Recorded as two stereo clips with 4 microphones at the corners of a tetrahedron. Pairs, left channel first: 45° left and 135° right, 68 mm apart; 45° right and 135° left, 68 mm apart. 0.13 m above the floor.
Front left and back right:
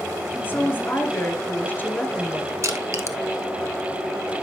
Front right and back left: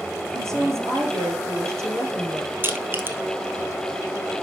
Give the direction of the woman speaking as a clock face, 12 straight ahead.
9 o'clock.